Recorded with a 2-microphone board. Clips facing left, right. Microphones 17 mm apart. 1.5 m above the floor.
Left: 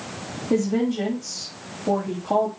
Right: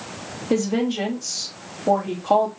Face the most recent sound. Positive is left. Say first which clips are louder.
# even
turn(degrees=-65)  # may be behind; listen again after turning